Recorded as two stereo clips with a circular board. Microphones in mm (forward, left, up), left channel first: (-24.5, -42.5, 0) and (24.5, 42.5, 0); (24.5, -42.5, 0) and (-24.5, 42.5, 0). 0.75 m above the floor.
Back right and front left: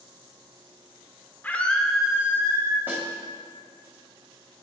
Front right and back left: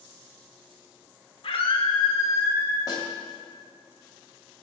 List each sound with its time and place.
1.4 s a scream: 50° right, 1.8 m; by 2.8 s 10° left, 1.7 m
2.9 s a snare drum: 10° right, 1.9 m